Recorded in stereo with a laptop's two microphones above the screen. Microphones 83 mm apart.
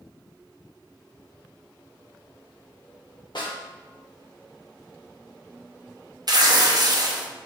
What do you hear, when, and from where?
3.4 s a snare drum: 65° left (ahead or behind), 1.0 m
6.3 s tearing paper: 55° right (ahead or behind), 0.6 m